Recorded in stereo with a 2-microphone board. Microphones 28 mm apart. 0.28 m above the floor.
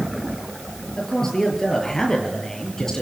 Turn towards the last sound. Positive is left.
turn(degrees=25)  # may be behind; listen again after turning